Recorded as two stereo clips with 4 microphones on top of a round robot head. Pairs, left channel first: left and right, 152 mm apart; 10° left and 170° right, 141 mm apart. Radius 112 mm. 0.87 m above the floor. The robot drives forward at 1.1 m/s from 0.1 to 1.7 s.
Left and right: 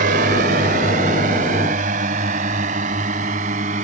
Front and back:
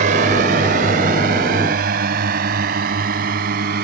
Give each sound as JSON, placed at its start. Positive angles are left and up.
{"t": 0.0, "sound": "a drone", "azimuth_deg": -130}